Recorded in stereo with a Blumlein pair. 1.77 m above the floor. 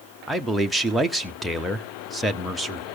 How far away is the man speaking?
About 1.1 m.